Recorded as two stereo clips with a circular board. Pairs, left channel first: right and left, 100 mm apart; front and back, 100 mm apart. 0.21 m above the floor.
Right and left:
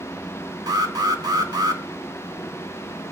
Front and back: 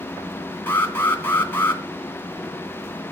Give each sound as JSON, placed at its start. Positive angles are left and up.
{"t": 0.7, "sound": "an alarm", "azimuth_deg": 60, "distance_m": 2.5}